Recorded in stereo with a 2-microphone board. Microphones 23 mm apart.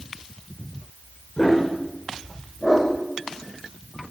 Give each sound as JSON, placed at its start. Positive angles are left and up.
{"t": 1.4, "sound": "a dog barking", "side_deg": 40, "distance_m": 9.0}